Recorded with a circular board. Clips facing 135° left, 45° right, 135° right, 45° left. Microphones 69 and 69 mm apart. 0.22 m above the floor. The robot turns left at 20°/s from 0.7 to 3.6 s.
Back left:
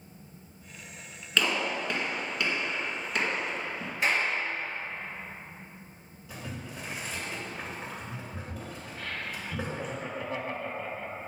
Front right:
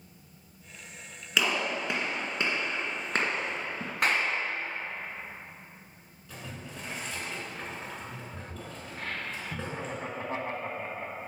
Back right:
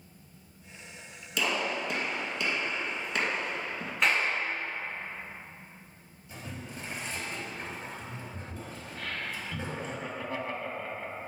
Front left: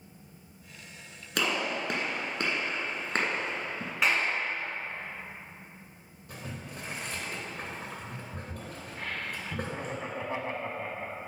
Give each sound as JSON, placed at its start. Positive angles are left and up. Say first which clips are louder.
{"t": 1.4, "sound": "a gunshot", "louder": "even, even", "azimuth_deg": 35, "distance_m": 1.8}
{"t": 4.0, "sound": "a clap", "louder": "even, even", "azimuth_deg": -40, "distance_m": 2.0}
{"t": 6.3, "sound": "boiling", "louder": "back left 2 dB, even", "azimuth_deg": 55, "distance_m": 2.5}
{"t": 9.0, "sound": "laughter", "louder": "front right 1 dB, even", "azimuth_deg": -10, "distance_m": 1.3}